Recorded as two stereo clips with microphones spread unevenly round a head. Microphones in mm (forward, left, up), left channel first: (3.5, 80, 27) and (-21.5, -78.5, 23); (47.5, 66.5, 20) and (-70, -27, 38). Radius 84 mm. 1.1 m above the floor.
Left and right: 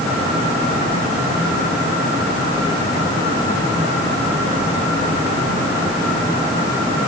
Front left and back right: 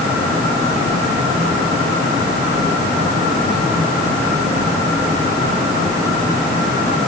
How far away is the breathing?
No breathing in this recording.